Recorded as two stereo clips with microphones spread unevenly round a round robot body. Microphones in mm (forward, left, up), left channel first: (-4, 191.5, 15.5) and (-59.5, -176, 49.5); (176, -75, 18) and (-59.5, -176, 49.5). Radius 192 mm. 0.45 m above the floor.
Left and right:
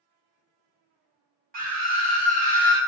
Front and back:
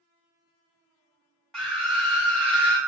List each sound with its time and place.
1.5 s a scream: 50° right, 1.1 m